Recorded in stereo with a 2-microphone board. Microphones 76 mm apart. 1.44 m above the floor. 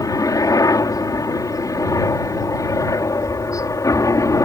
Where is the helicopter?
50° left (ahead or behind); by 4.5 s 45° left (ahead or behind).